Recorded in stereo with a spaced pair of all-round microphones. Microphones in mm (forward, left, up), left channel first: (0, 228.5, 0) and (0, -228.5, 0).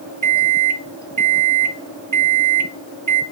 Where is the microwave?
45° right (ahead or behind), 0.5 m.